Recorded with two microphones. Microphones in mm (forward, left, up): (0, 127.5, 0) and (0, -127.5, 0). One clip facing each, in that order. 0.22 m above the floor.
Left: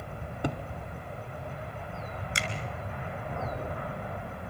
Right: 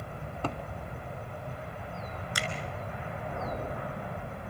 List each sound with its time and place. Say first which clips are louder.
0.4 s a cupboard door: left 3 dB; 15° left (ahead or behind), 1.1 m
2.4 s a finger snap: right 1 dB; 25° left (ahead or behind), 2 m